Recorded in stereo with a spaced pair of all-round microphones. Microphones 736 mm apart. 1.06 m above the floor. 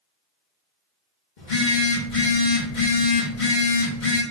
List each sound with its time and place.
1.4 s a phone buzzing: 75° left (ahead or behind), 1.5 m